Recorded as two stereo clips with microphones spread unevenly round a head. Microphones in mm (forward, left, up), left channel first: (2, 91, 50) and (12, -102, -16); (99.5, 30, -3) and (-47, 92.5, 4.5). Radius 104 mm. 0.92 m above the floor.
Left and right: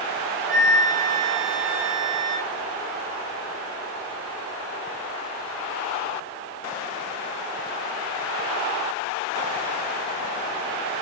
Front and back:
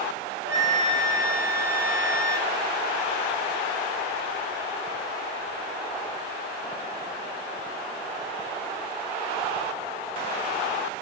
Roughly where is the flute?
Behind.